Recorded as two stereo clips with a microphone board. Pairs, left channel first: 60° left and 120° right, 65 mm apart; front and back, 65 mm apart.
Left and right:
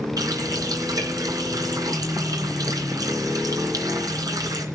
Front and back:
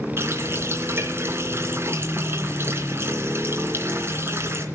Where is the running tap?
130° right, 2.5 m.